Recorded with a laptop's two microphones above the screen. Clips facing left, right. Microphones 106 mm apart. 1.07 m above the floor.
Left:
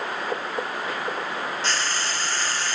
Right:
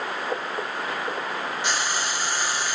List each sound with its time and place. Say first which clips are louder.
1.6 s frying: right 1 dB; 15° right (ahead or behind), 0.6 m